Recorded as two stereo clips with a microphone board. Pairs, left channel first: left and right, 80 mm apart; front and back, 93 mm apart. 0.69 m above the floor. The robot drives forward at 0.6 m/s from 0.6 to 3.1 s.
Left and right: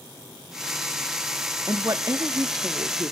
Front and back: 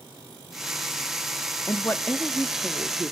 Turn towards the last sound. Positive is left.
turn(degrees=-125)